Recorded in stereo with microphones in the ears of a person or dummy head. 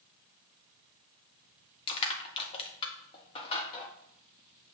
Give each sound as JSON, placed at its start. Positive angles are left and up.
{"t": 1.9, "sound": "crushing", "side_deg": 30, "distance_m": 1.5}